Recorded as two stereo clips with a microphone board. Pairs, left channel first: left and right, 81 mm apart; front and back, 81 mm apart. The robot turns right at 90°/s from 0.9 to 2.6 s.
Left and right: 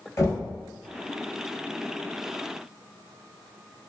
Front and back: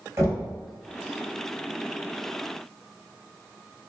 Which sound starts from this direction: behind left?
Knocking, at 0.2 s.